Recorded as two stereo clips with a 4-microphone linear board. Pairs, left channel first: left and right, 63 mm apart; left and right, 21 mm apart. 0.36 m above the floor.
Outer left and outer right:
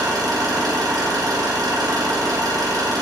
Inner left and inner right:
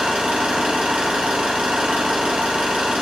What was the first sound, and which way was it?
An engine running, 75° right (ahead or behind).